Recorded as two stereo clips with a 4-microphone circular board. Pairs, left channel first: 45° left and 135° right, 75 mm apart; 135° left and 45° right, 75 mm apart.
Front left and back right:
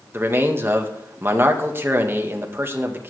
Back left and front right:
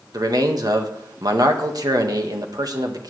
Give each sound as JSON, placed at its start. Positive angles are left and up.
{"t": 0.1, "sound": "a man speaking", "azimuth_deg": -75, "distance_m": 1.8}